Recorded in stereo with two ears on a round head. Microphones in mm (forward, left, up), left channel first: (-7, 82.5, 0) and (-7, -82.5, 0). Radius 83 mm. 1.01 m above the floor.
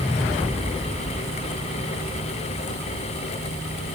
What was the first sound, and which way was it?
Only background noise.